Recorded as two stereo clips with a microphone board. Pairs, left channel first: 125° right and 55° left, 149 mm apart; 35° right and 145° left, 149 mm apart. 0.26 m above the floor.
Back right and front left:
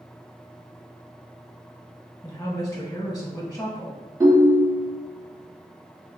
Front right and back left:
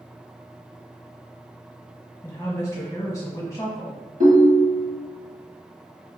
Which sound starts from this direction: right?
A woman speaking, at 2.2 s.